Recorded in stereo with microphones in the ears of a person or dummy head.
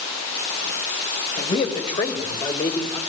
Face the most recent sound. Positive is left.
turn(degrees=15)  # may be behind; listen again after turning